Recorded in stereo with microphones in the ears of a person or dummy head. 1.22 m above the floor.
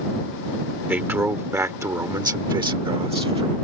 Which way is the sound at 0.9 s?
10° right (ahead or behind).